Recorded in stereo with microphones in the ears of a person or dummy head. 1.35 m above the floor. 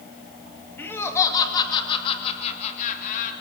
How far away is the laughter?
About 2.5 m.